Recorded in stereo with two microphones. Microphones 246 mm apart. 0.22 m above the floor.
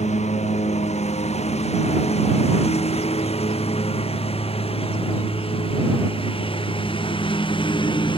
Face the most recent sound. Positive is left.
turn(degrees=20)  # may be behind; listen again after turning